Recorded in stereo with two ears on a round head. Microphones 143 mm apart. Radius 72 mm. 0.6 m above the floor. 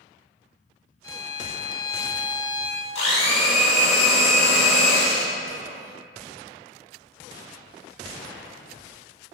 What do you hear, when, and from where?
1.0 s a violin: 25° left (ahead or behind), 0.9 m
3.0 s a blender: 40° left (ahead or behind), 2 m